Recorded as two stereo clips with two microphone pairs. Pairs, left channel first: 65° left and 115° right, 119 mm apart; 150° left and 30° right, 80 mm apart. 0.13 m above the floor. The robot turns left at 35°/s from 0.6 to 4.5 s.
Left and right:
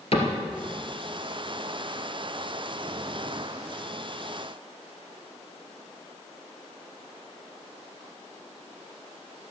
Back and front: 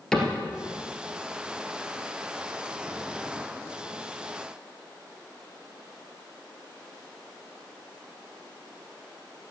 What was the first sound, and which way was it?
A cupboard door, 65° left.